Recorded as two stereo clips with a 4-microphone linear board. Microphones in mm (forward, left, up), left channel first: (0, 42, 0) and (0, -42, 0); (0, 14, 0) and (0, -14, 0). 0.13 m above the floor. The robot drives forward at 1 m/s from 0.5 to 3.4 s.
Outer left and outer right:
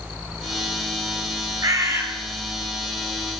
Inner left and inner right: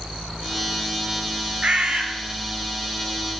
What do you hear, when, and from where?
1.6 s a bird: 45° right (ahead or behind), 0.6 m; by 2.0 s 30° right (ahead or behind), 0.9 m